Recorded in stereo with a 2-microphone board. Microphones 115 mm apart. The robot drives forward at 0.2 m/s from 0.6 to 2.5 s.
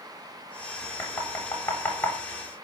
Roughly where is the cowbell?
I don't hear a cowbell.